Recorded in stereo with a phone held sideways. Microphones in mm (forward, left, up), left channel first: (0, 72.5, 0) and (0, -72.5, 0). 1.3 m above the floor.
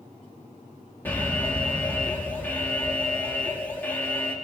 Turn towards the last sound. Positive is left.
turn(degrees=15)  # may be behind; listen again after turning